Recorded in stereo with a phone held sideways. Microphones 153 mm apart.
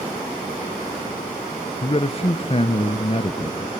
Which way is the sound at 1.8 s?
40° left (ahead or behind).